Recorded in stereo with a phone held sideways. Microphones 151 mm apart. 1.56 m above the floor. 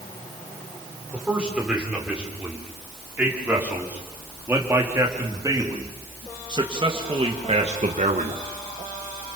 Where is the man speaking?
5° right (ahead or behind), 6 m; by 8.4 s 60° right (ahead or behind), 1.8 m.